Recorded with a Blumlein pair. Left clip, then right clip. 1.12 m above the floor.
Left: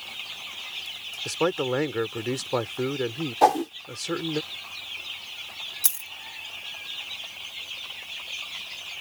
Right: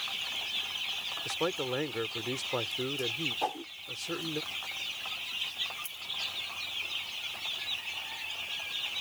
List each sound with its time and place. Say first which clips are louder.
1.2 s a man speaking: left 8 dB; 25° left
3.4 s a whoosh: left 14 dB; 35° left
5.8 s a dropped coin: left 7 dB; 40° left